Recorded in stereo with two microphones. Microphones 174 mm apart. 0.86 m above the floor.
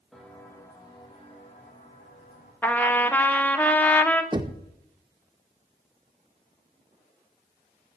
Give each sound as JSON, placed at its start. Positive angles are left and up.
{"t": 0.1, "sound": "footsteps", "side_deg": 0, "distance_m": 1.9}
{"t": 2.6, "sound": "a trumpet", "side_deg": 10, "distance_m": 0.7}
{"t": 4.3, "sound": "knocking", "side_deg": -25, "distance_m": 0.6}